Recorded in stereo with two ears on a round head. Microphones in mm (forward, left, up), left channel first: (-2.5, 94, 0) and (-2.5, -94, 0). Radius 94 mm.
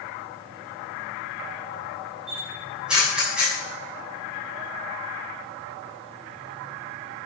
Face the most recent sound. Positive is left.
turn(degrees=-5)  # may be behind; listen again after turning